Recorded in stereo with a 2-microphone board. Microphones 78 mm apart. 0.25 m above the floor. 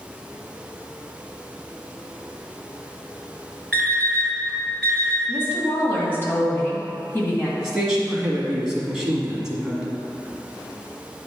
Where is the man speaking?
10° right (ahead or behind), 1.7 m.